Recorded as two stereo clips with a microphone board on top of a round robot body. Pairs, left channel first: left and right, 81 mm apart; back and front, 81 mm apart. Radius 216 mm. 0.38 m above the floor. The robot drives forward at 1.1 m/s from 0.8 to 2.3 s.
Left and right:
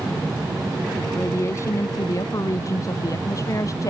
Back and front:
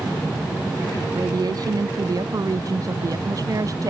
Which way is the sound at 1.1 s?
35° left.